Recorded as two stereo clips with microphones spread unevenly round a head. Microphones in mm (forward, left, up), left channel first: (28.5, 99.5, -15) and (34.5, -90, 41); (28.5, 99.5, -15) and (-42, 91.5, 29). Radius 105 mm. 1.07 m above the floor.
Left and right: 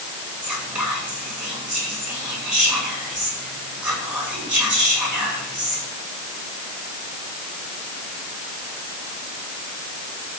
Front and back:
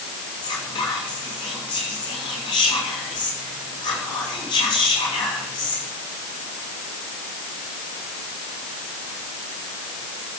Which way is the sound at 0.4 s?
5° right.